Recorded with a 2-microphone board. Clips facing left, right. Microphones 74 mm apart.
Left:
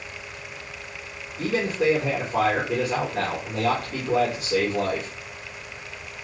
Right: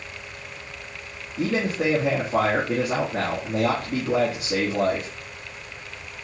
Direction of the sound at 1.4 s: 90° right.